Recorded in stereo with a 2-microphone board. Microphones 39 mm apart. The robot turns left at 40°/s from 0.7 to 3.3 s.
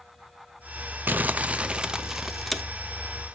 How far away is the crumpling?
About 0.6 m.